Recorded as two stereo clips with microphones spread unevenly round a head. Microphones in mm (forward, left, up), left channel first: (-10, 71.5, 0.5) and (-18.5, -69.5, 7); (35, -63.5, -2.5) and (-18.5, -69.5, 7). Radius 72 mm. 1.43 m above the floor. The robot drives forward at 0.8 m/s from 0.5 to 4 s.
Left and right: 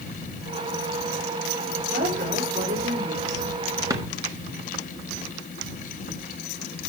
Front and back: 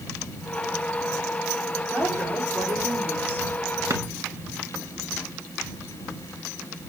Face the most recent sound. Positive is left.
turn(degrees=-160)